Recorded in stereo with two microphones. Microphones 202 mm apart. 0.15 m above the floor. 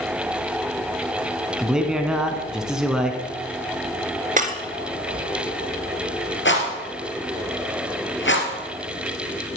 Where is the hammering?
No hammering in this recording.